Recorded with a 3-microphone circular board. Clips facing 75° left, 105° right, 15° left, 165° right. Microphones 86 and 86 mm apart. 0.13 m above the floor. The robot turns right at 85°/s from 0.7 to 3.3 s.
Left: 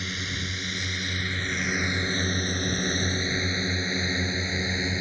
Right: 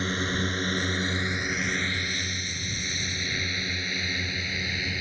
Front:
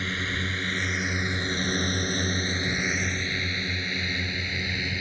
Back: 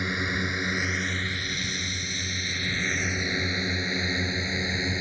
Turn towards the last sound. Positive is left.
turn(degrees=135)